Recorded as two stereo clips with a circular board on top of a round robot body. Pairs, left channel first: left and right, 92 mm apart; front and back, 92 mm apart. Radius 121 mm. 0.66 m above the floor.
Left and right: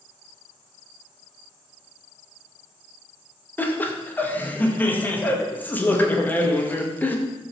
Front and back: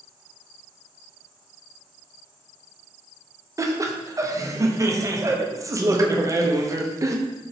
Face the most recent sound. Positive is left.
turn(degrees=150)